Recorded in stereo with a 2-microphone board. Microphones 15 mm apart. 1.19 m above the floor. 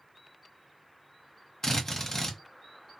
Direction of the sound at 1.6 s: 30° left (ahead or behind).